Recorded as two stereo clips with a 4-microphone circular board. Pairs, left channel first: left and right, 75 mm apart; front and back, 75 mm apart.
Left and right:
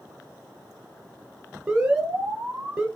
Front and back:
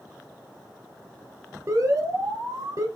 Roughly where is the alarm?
Behind.